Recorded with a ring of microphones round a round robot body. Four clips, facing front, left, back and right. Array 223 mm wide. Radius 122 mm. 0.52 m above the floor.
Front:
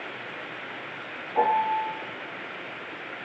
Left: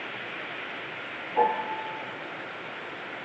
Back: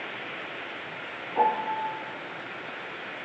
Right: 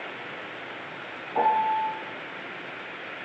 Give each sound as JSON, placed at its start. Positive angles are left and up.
{"t": 1.4, "sound": "a piano", "azimuth_deg": -80, "distance_m": 0.9}